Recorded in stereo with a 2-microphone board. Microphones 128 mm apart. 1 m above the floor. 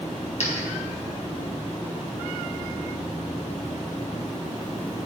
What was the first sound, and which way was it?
A dropped coin, 60° left (ahead or behind).